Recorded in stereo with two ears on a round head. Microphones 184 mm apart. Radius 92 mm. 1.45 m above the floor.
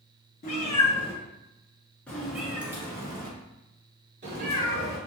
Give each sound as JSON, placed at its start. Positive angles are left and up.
{"t": 0.4, "sound": "a cat meowing", "side_deg": 40, "distance_m": 1.8}